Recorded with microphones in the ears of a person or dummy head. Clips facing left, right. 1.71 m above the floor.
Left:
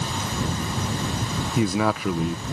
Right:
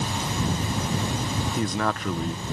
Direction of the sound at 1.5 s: 10° left (ahead or behind).